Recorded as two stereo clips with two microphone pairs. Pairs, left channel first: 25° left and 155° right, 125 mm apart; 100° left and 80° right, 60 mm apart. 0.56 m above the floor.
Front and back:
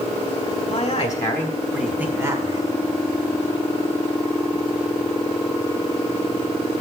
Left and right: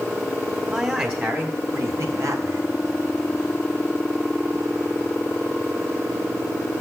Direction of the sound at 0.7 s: 10° right.